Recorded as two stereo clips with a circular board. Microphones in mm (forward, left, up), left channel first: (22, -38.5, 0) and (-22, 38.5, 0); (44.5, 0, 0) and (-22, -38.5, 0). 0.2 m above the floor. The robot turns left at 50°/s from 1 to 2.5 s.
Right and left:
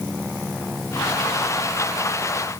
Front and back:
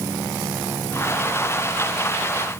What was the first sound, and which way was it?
Only background noise.